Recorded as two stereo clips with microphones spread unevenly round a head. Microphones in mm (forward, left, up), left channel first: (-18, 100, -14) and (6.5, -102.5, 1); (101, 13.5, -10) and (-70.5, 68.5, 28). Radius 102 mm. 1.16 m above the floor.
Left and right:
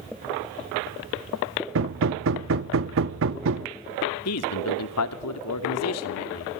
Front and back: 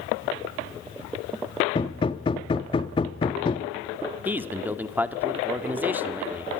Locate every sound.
1.8 s hammering: 90° right, 1.0 m
4.2 s a man speaking: 80° left, 2.5 m